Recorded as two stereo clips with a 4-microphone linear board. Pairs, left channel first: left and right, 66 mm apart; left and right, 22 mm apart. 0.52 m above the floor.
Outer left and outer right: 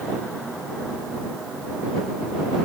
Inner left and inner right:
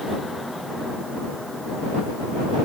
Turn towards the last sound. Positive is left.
No sound to turn to.